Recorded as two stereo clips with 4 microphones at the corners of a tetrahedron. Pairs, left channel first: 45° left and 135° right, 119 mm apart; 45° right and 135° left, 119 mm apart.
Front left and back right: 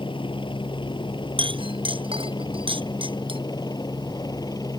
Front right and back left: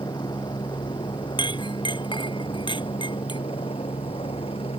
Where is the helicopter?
5° left; by 4.8 s 10° right.